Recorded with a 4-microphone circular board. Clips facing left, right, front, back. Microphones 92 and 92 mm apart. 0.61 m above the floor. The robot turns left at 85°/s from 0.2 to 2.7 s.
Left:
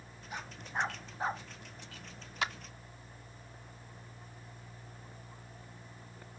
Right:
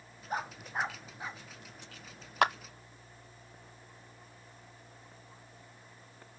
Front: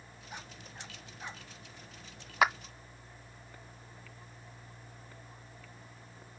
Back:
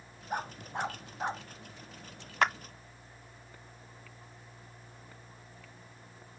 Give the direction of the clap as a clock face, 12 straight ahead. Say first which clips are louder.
Right 9 dB, front 1 dB; 3 o'clock.